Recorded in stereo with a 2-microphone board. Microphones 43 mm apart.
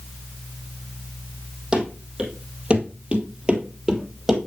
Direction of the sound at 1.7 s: 20° right (ahead or behind).